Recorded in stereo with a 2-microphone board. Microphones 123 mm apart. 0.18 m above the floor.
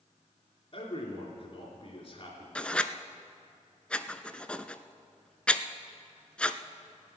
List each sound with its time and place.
0.7 s a man speaking: 35° left (ahead or behind), 2.5 m
2.5 s writing: 10° left (ahead or behind), 0.5 m